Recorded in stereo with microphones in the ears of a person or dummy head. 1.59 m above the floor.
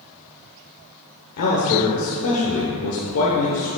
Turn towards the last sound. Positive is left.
turn(degrees=85)